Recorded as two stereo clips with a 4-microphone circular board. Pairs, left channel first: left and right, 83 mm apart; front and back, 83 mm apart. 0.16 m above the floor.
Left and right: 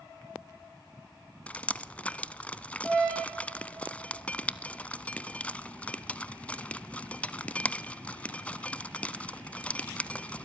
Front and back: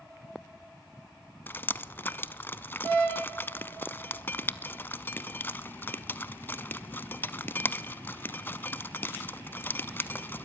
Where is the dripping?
35° left, 0.6 m.